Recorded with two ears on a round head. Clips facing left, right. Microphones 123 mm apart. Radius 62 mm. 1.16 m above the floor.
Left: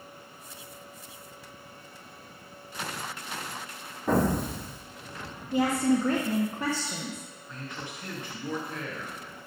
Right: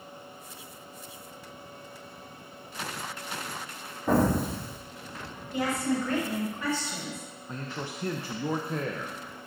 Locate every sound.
4.1 s an explosion: 5° right (ahead or behind), 1.9 m
5.5 s a woman speaking: 30° left (ahead or behind), 1.1 m
7.5 s a man speaking: 30° right (ahead or behind), 0.5 m